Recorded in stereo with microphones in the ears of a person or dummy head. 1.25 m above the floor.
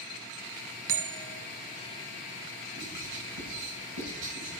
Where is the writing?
80° right, 7.5 m.